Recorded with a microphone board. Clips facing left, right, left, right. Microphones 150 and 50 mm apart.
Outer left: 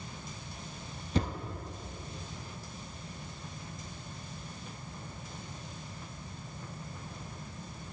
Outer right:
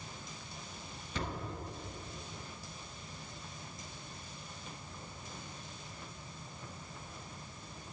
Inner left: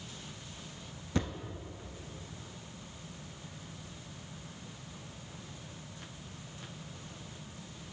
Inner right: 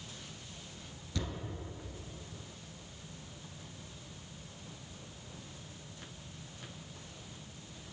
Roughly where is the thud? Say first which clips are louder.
Outer left 7 dB, inner left 6 dB; left.